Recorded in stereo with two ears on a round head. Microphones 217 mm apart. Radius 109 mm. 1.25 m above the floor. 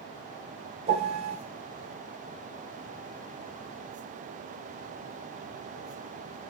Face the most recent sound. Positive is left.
turn(degrees=-25)  # may be behind; listen again after turning